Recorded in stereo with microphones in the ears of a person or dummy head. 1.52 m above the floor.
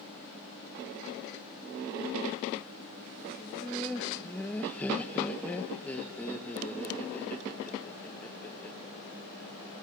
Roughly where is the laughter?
Centre.